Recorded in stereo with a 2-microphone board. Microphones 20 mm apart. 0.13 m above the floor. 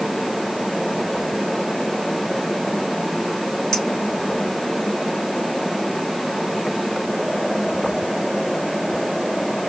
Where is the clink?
35° left (ahead or behind), 3.5 m.